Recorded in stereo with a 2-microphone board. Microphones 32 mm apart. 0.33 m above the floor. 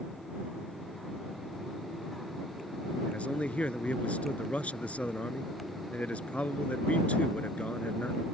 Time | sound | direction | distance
3.1 | a man speaking | 40° left (ahead or behind) | ?